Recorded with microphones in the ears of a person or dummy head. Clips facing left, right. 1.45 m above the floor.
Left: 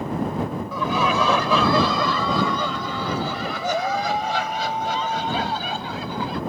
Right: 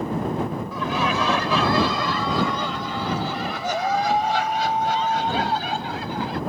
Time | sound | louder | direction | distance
0.7 | laughter | left 4 dB | 85° left | ?